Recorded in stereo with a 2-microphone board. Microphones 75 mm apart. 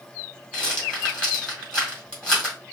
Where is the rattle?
15° left (ahead or behind), 1.9 m.